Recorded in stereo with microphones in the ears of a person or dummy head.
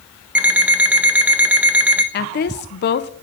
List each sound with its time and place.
0.3 s an alarm clock: 5° right (ahead or behind), 0.6 m
2.1 s a woman speaking: 50° left (ahead or behind), 0.8 m